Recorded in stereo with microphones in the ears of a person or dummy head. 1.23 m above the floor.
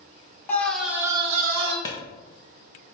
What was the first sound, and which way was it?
A scream, 15° left (ahead or behind).